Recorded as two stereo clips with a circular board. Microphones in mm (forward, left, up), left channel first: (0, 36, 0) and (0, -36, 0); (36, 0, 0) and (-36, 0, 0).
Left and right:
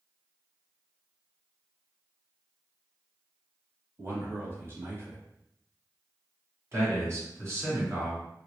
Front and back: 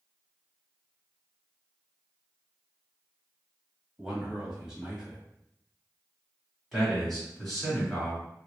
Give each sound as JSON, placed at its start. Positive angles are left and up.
{"t": 4.0, "sound": "a man speaking", "azimuth_deg": -105, "distance_m": 1.3}
{"t": 6.7, "sound": "a man speaking", "azimuth_deg": -80, "distance_m": 1.8}